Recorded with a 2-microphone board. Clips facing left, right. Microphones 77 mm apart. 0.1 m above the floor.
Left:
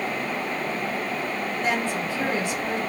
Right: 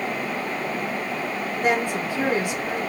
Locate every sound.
1.6 s a woman speaking: 15° right (ahead or behind), 1.4 m